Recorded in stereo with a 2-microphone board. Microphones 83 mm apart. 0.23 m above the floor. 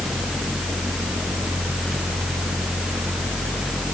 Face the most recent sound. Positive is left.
No sound to turn to.